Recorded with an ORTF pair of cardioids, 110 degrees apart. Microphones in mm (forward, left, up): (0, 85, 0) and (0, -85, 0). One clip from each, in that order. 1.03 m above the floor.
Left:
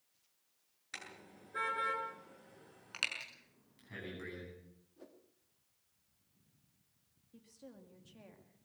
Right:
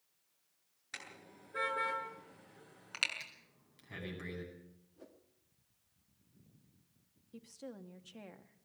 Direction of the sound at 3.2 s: 15° right.